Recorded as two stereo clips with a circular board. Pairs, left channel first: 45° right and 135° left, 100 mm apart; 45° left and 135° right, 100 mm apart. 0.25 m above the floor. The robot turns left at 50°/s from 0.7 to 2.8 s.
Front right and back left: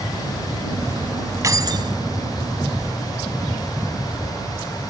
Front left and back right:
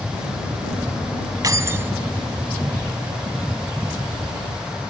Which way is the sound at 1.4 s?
Straight behind.